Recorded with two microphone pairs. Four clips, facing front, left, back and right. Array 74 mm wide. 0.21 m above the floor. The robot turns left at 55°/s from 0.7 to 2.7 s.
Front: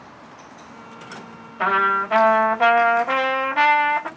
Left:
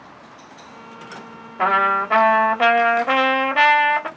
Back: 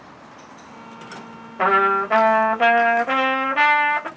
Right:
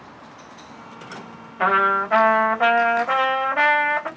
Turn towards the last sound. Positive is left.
turn(degrees=100)